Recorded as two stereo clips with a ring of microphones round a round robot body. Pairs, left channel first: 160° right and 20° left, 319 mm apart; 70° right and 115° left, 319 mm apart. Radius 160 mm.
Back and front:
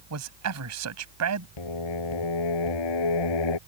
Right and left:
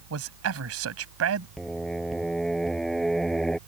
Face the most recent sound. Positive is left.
turn(degrees=-155)